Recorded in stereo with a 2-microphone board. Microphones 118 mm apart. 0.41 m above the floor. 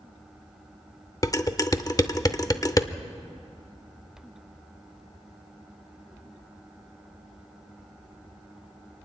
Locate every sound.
1.2 s dishes clattering: 30° left (ahead or behind), 0.6 m